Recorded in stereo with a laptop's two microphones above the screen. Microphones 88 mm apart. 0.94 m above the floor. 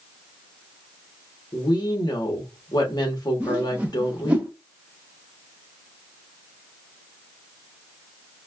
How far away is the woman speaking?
About 1.1 m.